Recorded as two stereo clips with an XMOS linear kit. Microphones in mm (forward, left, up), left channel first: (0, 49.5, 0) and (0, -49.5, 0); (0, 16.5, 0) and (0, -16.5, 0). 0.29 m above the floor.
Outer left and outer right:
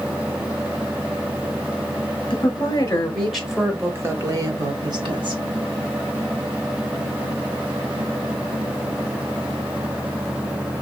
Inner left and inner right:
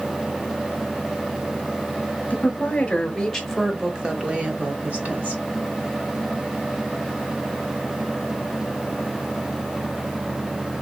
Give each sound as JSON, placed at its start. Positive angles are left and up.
{"t": 2.3, "sound": "a woman speaking", "side_deg": 40, "distance_m": 1.2}